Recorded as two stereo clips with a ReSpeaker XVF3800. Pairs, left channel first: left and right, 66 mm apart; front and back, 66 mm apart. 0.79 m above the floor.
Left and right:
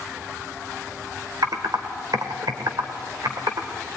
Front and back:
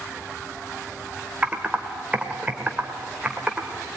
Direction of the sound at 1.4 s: 110° right.